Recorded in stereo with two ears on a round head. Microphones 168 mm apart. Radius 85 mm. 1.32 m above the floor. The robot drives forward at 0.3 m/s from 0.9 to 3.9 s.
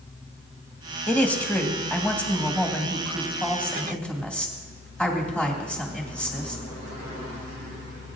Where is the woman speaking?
10° left (ahead or behind), 1.5 m; by 6.6 s 5° left (ahead or behind), 2.5 m.